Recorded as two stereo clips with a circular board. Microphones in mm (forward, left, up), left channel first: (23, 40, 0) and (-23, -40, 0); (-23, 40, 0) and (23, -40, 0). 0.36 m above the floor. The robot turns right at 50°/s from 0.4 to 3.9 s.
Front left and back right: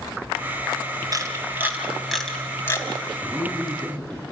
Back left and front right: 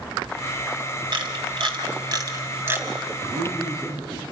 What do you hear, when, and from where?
1.1 s a camera shutter: 80° right, 2.5 m; by 2.9 s 5° left, 2.5 m
3.2 s a man speaking: 55° right, 3.5 m; by 4.2 s 20° right, 3.5 m